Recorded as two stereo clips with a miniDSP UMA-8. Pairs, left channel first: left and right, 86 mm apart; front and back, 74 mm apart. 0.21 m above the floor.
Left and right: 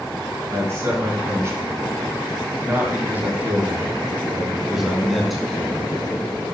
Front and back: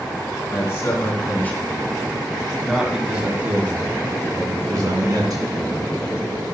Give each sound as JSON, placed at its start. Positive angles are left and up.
{"t": 0.5, "sound": "a man speaking", "azimuth_deg": -40, "distance_m": 2.0}